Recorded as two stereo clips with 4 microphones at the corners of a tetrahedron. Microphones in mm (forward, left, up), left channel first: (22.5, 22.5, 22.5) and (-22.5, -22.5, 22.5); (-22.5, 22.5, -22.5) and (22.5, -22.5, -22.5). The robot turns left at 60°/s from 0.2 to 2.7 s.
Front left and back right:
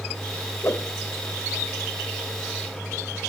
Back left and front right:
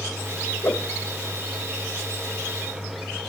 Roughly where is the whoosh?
Left.